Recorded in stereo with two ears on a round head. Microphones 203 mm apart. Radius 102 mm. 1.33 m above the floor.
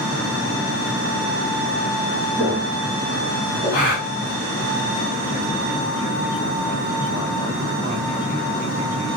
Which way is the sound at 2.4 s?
25° left (ahead or behind).